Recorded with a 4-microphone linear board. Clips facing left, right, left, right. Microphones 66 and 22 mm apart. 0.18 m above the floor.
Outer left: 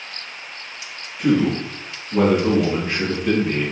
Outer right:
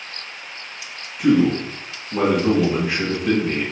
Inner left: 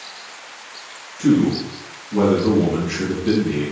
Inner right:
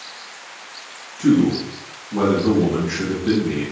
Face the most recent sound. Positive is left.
turn(degrees=-5)  # may be behind; listen again after turning